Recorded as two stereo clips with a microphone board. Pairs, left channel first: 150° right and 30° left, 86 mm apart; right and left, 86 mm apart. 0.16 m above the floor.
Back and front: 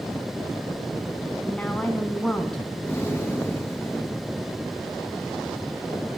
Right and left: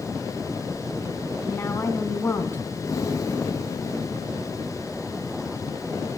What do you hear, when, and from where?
1.4 s a woman speaking: 85° right, 1.2 m
2.8 s breathing: 100° right, 1.8 m